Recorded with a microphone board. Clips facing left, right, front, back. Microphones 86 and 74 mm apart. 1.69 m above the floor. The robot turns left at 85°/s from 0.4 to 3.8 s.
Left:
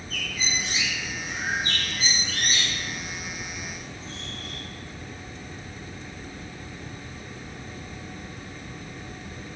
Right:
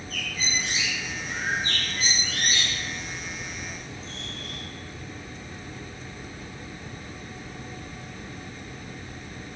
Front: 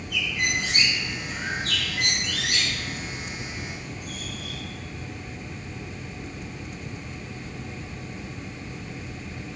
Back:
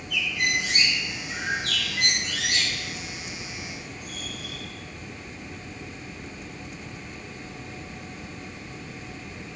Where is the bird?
45° right, 2.0 m; by 4.6 s 25° left, 2.0 m.